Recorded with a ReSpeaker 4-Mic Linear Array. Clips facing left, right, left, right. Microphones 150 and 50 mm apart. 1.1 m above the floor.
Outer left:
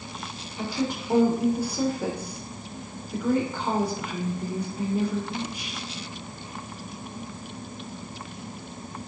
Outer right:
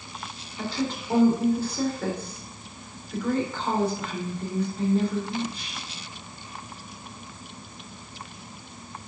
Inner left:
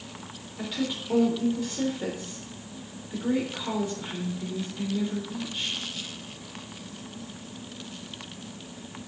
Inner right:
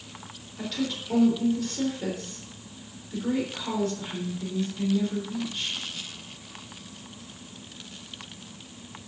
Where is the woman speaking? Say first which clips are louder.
Outer left 1 dB, even; 15° left (ahead or behind), 3.5 m.